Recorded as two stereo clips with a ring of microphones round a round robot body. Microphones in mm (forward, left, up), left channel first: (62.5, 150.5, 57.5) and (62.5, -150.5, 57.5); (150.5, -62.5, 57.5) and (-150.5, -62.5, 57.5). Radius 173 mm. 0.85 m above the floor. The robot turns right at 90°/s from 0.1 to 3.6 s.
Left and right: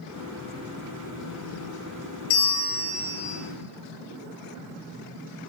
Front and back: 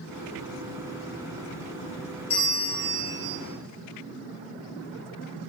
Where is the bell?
75° left, 0.9 m; by 3.4 s 170° left, 0.9 m.